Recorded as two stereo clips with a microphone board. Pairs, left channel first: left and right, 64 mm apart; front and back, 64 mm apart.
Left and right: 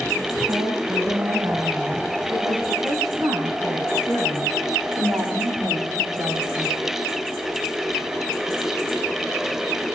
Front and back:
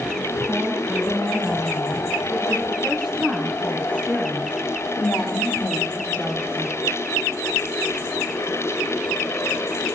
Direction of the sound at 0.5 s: 90° right.